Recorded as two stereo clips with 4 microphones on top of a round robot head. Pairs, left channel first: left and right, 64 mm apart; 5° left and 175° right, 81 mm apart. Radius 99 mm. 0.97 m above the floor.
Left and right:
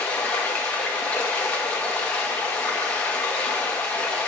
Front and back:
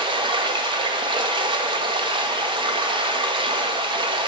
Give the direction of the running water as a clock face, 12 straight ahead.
7 o'clock.